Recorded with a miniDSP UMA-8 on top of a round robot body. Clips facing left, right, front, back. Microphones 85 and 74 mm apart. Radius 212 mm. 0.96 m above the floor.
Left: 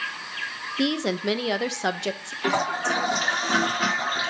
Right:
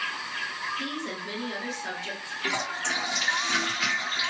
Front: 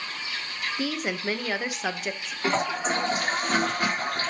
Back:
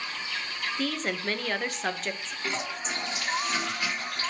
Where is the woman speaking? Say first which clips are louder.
Left 9 dB, front 1 dB; 85° left, 1.0 m.